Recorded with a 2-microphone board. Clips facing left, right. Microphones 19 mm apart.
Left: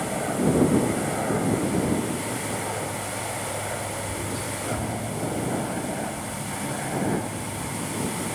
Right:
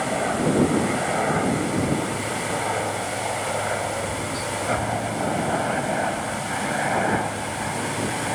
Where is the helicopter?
20° right (ahead or behind); by 8.3 s 40° right (ahead or behind).